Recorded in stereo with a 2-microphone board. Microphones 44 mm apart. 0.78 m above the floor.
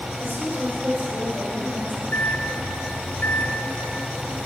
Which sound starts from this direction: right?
A woman speaking, at 0.2 s.